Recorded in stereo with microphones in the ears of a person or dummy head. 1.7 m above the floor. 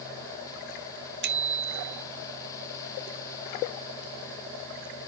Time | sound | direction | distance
1.2 | a bicycle bell | 65° right (ahead or behind) | ?